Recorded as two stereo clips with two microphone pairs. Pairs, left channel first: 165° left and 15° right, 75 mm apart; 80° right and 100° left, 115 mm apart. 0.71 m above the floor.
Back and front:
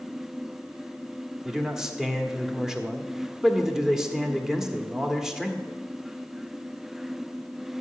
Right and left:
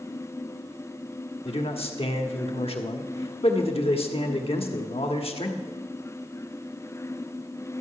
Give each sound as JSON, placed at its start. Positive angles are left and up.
{"t": 1.4, "sound": "a man speaking", "azimuth_deg": -100, "distance_m": 1.3}